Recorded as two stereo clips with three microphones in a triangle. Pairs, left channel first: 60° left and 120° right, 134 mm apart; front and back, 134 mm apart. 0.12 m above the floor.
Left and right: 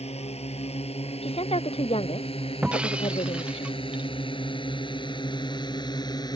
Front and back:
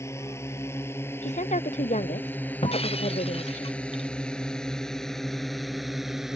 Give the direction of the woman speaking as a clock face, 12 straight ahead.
11 o'clock.